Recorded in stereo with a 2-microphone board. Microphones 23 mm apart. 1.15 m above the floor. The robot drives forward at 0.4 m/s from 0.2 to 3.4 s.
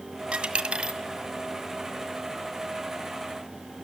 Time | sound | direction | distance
0.3 | a dropped coin | 40° right (ahead or behind) | 1.7 m